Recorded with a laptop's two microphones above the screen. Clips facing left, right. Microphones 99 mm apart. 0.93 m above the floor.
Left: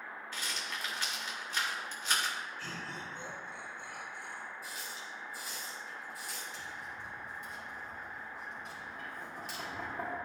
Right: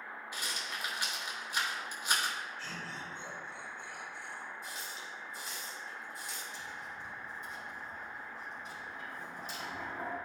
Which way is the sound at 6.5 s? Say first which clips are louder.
Even; 70° left (ahead or behind).